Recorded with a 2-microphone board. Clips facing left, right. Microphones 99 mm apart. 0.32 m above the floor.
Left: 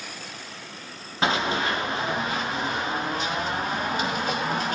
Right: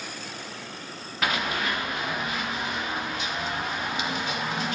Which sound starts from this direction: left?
Running footsteps, at 1.2 s.